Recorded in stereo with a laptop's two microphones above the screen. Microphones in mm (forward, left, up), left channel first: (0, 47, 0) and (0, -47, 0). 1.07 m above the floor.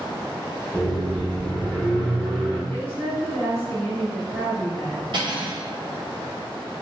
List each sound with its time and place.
0.7 s a microwave: 15° left (ahead or behind), 0.8 m
2.7 s a woman speaking: 20° left (ahead or behind), 1.1 m
5.1 s cutlery clinking: 55° right (ahead or behind), 1.6 m